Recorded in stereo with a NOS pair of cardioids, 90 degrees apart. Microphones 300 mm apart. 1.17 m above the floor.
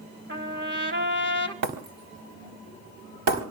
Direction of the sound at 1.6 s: 65° right.